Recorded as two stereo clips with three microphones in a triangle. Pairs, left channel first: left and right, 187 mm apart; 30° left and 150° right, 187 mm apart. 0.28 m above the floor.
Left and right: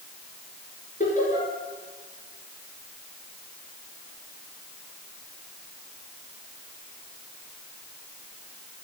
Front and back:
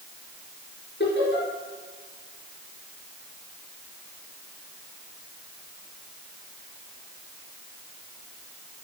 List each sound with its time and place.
1.0 s laughter: 45° left, 4.5 m